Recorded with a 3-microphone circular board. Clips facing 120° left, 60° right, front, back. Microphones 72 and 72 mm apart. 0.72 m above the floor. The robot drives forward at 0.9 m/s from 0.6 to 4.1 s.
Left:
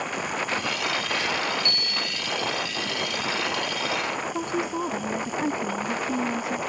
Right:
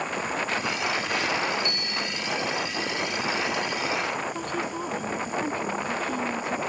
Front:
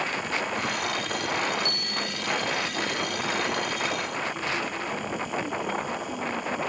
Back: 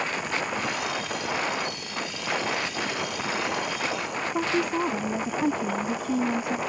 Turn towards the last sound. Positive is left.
turn(degrees=-170)